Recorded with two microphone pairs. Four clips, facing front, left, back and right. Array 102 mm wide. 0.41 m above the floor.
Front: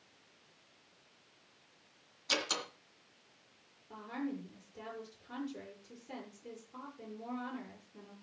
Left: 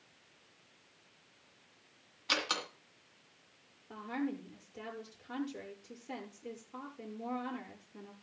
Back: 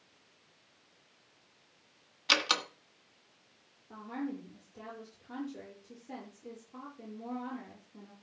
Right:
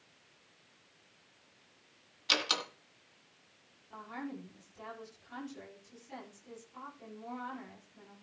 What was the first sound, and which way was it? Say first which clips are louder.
A door slam: right 1 dB, back 6 dB; 170° right.